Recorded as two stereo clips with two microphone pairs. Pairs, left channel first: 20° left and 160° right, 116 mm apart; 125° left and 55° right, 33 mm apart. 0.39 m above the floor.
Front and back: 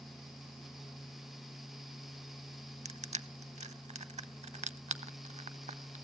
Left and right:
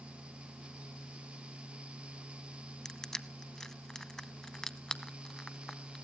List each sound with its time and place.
2.9 s crushing: 160° right, 0.5 m